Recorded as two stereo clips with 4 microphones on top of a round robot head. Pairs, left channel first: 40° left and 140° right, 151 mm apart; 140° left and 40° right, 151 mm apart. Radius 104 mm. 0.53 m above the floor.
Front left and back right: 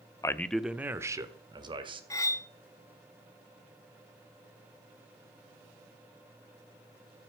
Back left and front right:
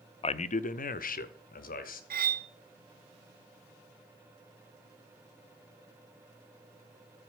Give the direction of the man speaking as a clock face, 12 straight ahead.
9 o'clock.